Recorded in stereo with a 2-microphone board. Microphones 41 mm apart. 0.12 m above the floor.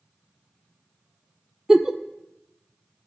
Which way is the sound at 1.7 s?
10° right (ahead or behind).